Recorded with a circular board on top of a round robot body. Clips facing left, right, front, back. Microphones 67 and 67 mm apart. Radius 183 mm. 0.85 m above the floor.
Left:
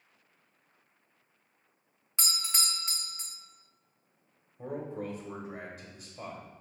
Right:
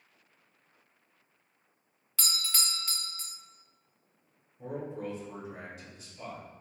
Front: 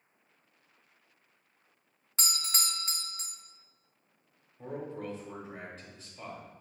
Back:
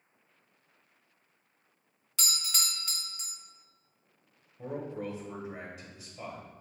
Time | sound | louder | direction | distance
2.2 | a doorbell | even, front 1 dB | 35° left | 0.8 m
4.6 | a man speaking | even, back 2 dB | 105° left | 1.0 m